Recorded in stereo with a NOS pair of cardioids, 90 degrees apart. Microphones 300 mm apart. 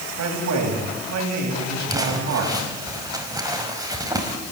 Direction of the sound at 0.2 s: 60° right.